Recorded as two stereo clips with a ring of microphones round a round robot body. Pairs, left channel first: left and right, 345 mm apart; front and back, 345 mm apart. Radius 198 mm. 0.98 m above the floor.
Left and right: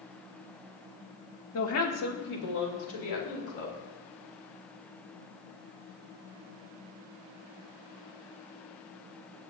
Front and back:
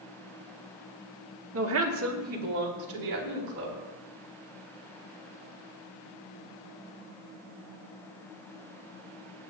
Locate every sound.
1.5 s a woman speaking: 135° left, 1.2 m; by 3.8 s 125° left, 3.5 m